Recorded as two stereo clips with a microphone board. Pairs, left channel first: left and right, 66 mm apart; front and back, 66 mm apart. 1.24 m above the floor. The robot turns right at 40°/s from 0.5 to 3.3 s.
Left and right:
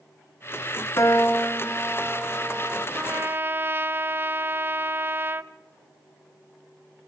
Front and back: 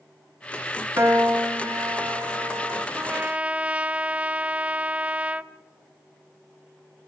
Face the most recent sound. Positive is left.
turn(degrees=-120)